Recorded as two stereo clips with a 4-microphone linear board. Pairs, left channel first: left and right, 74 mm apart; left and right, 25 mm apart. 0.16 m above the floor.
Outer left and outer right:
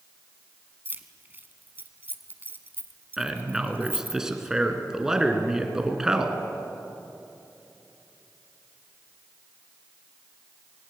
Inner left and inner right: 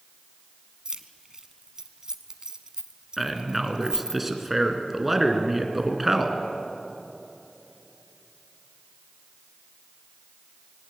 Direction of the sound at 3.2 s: 10° right (ahead or behind).